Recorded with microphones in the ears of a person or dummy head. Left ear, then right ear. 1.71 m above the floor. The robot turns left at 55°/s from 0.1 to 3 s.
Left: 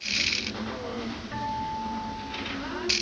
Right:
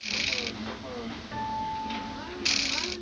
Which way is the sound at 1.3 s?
175° right.